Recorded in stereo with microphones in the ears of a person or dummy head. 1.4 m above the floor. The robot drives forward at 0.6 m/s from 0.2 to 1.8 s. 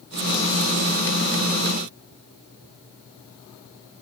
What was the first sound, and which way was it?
Only background noise.